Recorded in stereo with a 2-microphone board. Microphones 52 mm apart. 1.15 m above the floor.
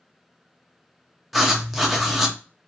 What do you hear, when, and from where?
1.3 s writing: 5° right (ahead or behind), 0.6 m